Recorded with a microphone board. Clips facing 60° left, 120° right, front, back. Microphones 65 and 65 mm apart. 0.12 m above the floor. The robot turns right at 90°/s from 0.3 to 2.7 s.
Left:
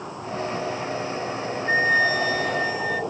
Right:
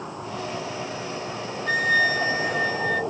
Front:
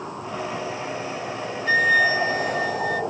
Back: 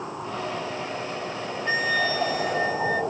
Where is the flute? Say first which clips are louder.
Left 1 dB, front 6 dB; 115° right, 0.6 m; by 3.0 s 20° right, 0.6 m.